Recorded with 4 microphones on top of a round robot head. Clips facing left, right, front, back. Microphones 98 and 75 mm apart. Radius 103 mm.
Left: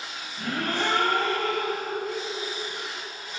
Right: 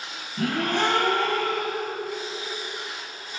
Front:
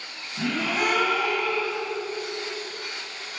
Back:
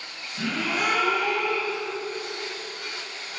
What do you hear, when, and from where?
0.4 s a gasp: 65° right, 4 m